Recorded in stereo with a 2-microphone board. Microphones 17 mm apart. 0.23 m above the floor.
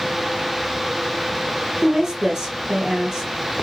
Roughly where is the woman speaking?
Right.